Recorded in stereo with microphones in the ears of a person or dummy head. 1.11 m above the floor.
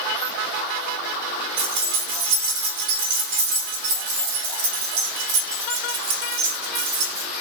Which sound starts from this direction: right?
Keys jangling, at 1.6 s.